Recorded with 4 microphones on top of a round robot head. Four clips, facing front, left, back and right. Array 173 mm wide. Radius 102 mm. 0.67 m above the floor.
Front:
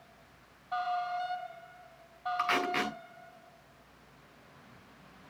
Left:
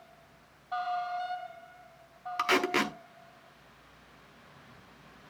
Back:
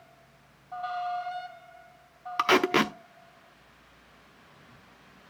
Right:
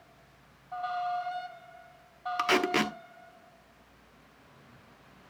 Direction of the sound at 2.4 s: 170° right.